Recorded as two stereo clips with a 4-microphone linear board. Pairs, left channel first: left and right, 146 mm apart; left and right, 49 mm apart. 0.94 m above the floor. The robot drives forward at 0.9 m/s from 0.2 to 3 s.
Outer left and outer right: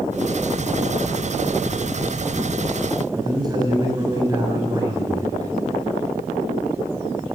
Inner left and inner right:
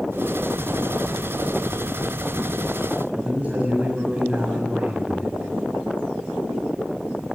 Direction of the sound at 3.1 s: 25° right (ahead or behind).